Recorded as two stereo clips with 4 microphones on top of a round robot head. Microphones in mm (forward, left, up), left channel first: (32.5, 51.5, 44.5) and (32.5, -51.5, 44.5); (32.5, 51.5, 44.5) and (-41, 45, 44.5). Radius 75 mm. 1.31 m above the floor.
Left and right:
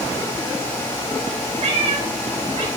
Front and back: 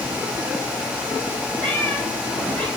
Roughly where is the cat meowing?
Right.